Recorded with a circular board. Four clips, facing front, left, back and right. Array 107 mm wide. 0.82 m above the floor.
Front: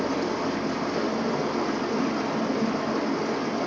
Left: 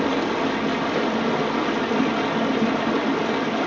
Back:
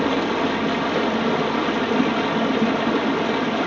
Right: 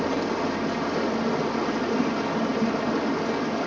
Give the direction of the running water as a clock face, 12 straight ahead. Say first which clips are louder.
Left 3 dB, back 5 dB; 7 o'clock.